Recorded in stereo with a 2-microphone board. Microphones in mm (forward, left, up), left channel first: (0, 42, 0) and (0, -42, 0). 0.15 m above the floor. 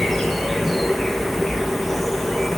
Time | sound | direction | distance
0.0 | an insect | centre (ahead or behind) | 0.8 m